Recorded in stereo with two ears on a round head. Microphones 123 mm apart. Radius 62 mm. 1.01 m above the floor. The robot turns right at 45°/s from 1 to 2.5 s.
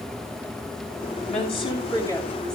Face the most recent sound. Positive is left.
turn(degrees=175)